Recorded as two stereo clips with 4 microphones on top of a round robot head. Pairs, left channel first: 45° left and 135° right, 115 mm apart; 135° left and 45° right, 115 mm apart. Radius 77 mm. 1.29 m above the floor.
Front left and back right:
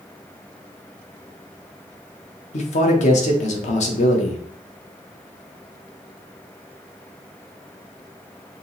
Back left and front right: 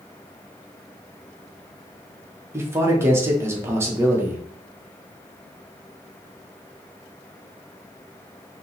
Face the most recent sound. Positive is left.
turn(degrees=25)